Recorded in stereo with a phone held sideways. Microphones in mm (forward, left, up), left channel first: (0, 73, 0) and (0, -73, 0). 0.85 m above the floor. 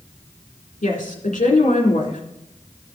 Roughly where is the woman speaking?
Left.